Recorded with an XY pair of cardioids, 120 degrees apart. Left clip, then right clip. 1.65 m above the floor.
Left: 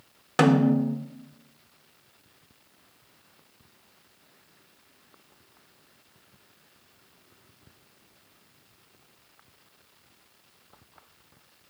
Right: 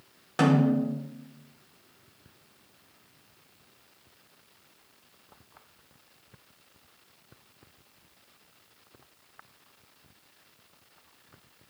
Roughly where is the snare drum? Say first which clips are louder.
Left 3 dB; ahead left.